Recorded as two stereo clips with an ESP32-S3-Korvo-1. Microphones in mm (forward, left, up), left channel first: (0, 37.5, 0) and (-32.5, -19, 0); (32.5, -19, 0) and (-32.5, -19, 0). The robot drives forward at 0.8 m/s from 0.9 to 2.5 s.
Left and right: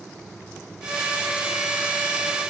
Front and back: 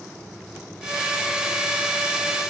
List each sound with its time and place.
Only background noise.